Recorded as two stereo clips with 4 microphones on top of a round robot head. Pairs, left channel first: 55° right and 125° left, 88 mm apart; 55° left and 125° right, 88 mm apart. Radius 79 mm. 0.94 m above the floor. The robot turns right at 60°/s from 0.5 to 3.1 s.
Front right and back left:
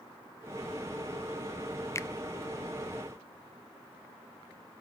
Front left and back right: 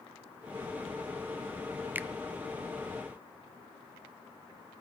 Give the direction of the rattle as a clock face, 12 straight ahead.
I don't hear a rattle.